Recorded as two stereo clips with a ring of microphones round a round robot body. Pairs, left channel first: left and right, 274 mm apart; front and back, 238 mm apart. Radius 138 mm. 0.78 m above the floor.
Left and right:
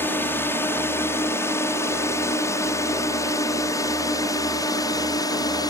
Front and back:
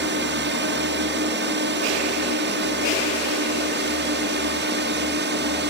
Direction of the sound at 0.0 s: 170° left.